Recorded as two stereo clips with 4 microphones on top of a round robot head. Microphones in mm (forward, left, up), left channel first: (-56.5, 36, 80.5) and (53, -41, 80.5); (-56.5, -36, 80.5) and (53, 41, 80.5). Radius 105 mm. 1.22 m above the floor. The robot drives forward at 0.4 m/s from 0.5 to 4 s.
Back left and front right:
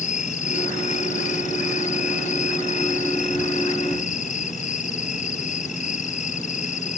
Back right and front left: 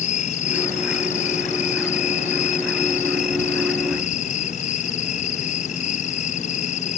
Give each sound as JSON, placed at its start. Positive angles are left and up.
{"t": 0.0, "sound": "an insect", "azimuth_deg": 180}